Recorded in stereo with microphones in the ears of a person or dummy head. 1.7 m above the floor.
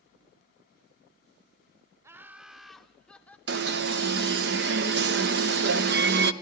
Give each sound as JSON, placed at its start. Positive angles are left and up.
{"t": 2.0, "sound": "laughter", "side_deg": -15, "distance_m": 0.6}
{"t": 3.5, "sound": "an alarm", "side_deg": -50, "distance_m": 0.9}